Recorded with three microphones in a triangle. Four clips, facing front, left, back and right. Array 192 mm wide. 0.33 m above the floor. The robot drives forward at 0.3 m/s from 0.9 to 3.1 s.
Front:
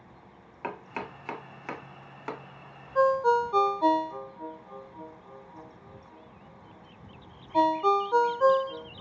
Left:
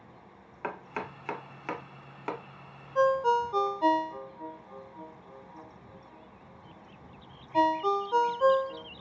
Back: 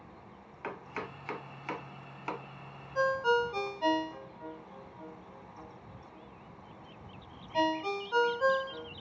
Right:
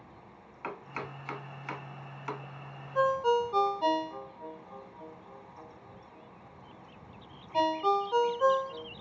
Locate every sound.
0.6 s chopping: 50° left, 1.0 m; by 2.4 s 85° left, 0.8 m
3.0 s a ringtone: 5° right, 0.9 m